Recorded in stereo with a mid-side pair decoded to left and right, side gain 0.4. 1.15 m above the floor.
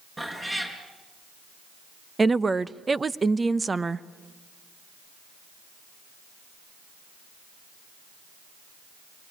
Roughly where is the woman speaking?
Ahead right.